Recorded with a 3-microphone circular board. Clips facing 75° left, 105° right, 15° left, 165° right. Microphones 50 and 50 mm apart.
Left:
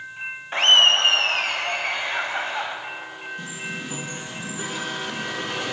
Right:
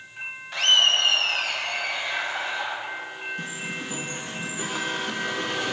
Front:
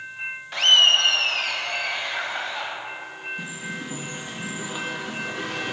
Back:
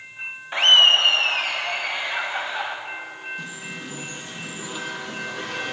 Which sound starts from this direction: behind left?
Laughter, at 0.5 s.